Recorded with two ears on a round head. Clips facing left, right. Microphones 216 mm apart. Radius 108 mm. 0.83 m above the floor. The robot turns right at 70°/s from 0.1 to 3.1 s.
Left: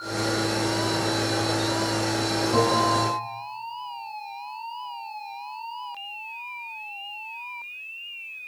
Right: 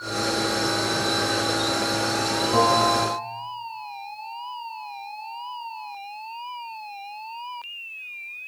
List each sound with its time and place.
2.5 s a bell: straight ahead, 7 m; by 3.2 s 40° left, 7 m